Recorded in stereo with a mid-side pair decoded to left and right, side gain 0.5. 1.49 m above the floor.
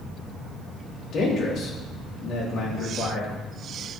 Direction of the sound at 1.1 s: 65° left.